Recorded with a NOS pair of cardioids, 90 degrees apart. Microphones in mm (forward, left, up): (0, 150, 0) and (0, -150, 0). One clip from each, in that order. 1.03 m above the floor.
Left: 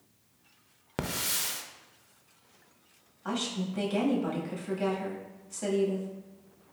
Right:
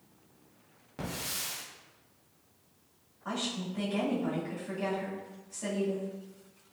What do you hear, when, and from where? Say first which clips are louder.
1.0 s a hiss: left 5 dB; 65° left, 0.6 m
3.2 s a woman speaking: left 2 dB; 40° left, 1.8 m